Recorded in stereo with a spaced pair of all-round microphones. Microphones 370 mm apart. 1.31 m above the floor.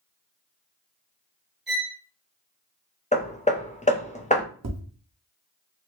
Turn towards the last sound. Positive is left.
turn(degrees=-40)  # may be behind; listen again after turning